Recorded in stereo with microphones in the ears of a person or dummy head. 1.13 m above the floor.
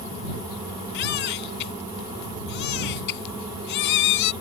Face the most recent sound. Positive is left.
turn(degrees=55)  # may be behind; listen again after turning